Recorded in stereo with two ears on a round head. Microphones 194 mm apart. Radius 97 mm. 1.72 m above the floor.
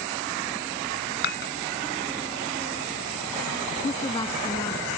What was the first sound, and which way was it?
Dishes clattering, 50° left (ahead or behind).